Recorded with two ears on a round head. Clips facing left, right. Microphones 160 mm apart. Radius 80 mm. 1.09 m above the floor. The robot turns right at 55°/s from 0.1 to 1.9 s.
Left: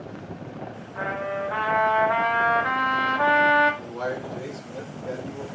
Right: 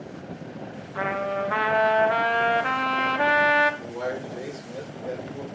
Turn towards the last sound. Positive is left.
turn(degrees=-15)  # may be behind; listen again after turning